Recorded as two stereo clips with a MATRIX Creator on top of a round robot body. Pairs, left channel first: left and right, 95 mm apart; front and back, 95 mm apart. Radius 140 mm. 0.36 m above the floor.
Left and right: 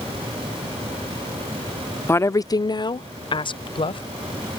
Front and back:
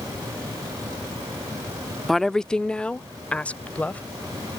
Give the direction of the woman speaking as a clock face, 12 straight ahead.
9 o'clock.